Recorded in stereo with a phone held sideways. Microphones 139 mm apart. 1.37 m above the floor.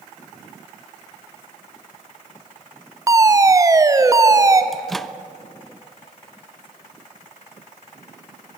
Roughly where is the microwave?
Centre.